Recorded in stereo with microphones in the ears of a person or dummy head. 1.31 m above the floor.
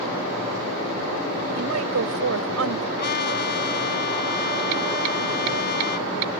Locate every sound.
1.6 s a woman speaking: 85° right
3.0 s a trumpet: 55° left (ahead or behind)